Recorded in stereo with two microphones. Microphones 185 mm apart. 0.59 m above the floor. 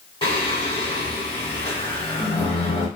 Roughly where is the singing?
Left.